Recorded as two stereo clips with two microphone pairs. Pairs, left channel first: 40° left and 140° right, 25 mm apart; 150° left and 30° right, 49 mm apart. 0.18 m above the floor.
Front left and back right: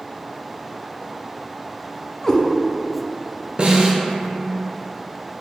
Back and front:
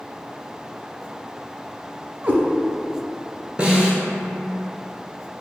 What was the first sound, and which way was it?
A cat meowing, 5° right.